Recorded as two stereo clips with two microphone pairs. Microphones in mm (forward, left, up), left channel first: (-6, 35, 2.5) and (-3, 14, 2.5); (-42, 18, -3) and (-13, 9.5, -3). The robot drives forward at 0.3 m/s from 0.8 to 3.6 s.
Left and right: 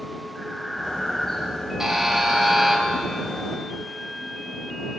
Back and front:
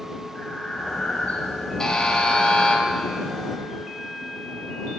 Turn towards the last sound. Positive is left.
turn(degrees=-160)